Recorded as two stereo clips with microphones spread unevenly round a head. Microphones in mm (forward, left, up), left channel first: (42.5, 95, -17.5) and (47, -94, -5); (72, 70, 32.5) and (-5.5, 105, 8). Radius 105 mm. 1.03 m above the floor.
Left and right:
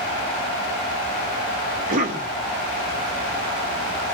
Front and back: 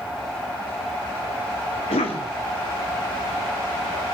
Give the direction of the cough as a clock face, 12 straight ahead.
1 o'clock.